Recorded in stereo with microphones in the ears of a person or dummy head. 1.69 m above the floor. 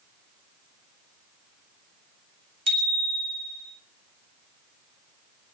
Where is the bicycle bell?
30° right (ahead or behind), 3 m.